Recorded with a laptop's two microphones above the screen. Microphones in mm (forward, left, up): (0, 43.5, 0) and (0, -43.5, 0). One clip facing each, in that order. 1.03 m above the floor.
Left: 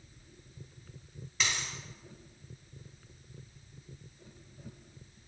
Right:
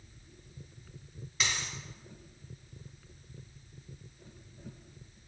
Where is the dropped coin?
Centre (ahead or behind), 1.5 m.